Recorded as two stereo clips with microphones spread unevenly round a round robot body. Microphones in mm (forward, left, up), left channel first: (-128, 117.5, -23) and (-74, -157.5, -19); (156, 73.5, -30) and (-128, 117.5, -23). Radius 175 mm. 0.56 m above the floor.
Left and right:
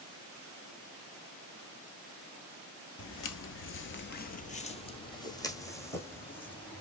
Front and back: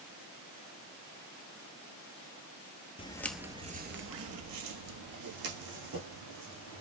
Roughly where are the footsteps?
Ahead left.